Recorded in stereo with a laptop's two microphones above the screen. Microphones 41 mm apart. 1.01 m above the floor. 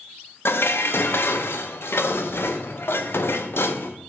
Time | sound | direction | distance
0.5 | dishes clattering | 70° left (ahead or behind) | 0.7 m